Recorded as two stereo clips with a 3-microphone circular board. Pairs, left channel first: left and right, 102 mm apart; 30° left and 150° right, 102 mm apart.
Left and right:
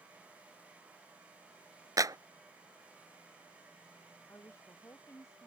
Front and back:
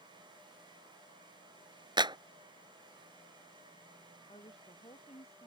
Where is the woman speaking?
30° left.